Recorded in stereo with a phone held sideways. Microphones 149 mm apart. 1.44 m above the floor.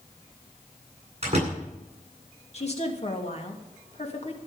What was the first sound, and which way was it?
A door slam, 50° right (ahead or behind).